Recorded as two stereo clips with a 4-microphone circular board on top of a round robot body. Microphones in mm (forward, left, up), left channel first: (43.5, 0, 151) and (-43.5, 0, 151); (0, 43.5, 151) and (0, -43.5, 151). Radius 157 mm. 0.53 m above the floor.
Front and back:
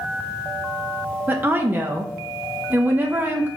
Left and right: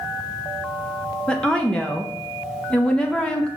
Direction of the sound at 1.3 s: 155° left.